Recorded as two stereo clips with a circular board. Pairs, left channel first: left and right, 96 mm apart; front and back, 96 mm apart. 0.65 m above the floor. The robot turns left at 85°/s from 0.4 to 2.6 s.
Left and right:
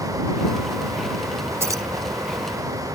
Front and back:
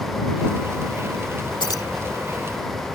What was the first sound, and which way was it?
Keys jangling, 30° right.